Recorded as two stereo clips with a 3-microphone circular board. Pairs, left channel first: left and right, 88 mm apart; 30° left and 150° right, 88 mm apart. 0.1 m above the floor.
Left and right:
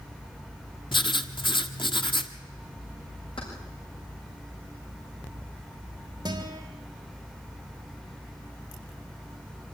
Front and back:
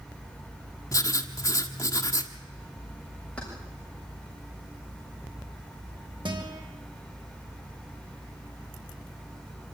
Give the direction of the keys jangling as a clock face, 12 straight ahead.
8 o'clock.